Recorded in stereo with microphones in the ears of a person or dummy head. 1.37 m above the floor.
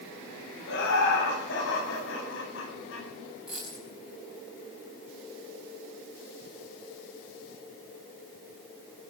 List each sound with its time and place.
0.7 s laughter: 65° left (ahead or behind), 9.5 m; by 3.1 s 75° left (ahead or behind), 11 m
3.5 s a dropped coin: 5° right (ahead or behind), 5 m